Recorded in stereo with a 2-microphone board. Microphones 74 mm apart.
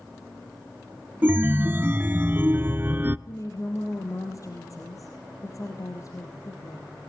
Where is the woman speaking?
45° left (ahead or behind), 3 m.